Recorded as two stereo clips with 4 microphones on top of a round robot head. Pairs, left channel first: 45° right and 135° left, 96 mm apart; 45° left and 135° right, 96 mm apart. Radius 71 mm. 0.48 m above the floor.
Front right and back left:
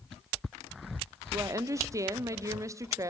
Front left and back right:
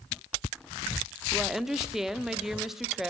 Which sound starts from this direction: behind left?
A woman speaking, at 1.3 s.